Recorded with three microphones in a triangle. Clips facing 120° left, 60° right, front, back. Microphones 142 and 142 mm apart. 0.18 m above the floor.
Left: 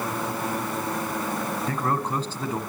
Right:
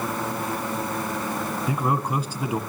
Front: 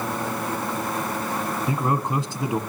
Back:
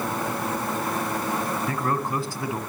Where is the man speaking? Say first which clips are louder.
Right 3 dB, front 2 dB; 5° right, 1.0 m.